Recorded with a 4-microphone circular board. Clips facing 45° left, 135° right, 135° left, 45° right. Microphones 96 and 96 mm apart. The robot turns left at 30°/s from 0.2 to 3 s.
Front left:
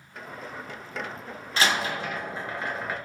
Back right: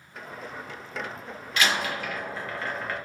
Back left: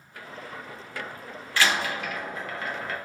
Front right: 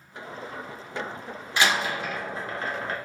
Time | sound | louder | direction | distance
1.6 | a door slam | front left 1 dB, front right 1 dB | 15° left | 0.6 m